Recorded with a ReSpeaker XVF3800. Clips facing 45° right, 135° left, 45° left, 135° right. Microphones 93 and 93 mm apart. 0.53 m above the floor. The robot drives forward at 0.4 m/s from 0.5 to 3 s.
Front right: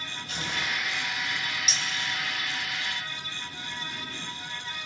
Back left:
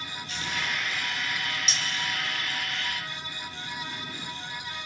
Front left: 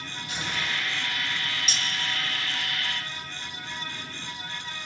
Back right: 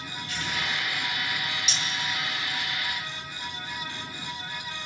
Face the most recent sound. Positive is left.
turn(degrees=135)